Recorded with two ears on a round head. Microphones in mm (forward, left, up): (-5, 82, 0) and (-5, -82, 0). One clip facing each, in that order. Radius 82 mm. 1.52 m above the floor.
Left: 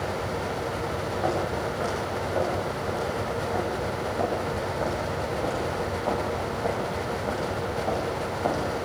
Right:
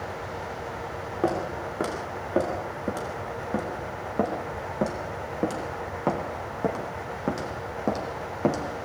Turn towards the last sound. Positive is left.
turn(degrees=-60)  # may be behind; listen again after turning